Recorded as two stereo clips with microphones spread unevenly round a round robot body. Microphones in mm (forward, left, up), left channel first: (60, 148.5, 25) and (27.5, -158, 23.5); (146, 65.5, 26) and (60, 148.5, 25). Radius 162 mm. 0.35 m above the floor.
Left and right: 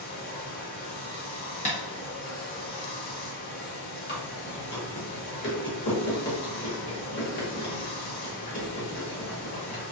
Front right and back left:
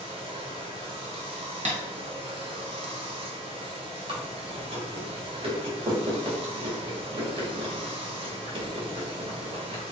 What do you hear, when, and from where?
0.0 s running water: 135° left, 0.9 m
1.6 s tapping: 150° left, 1.1 m
4.1 s chewing: 125° left, 1.3 m